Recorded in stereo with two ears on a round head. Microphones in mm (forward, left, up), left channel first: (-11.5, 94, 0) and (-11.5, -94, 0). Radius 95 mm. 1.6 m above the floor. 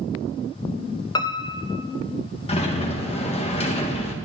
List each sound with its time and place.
1.1 s a piano: 20° left (ahead or behind), 0.6 m
2.5 s a sliding door: 30° left (ahead or behind), 1.8 m